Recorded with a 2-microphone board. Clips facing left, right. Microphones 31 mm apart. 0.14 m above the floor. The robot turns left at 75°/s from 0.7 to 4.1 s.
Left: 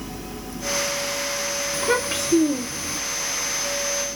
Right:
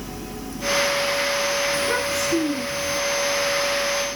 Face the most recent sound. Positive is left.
turn(degrees=-25)